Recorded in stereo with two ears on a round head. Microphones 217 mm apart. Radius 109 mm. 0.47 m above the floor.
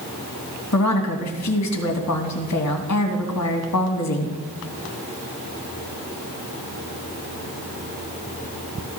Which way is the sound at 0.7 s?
75° left (ahead or behind).